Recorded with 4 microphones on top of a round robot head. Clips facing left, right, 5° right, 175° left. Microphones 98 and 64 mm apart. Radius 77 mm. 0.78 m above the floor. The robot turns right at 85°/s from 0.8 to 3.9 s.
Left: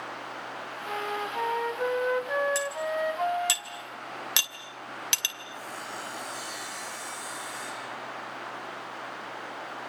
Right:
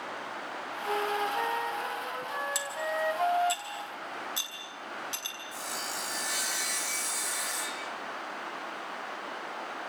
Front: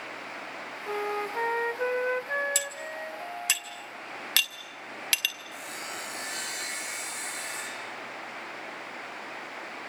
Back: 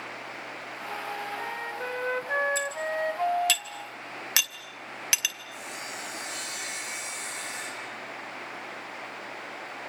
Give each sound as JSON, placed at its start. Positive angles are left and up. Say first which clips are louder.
{"t": 0.9, "sound": "a flute", "louder": "right 3 dB, front 4 dB", "azimuth_deg": -25, "distance_m": 0.8}
{"t": 2.5, "sound": "cutlery clinking", "louder": "left 3 dB, back 6 dB", "azimuth_deg": -15, "distance_m": 2.5}
{"t": 5.5, "sound": "sawing", "louder": "right 1 dB, even", "azimuth_deg": -65, "distance_m": 7.0}